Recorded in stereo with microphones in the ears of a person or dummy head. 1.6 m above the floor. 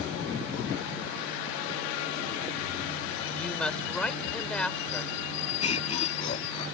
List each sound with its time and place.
3.3 s a woman speaking: 5° left (ahead or behind)
5.6 s laughter: 40° left (ahead or behind)